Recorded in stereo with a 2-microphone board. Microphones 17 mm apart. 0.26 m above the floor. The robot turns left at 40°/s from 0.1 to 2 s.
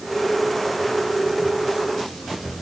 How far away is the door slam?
I don't hear a door slam.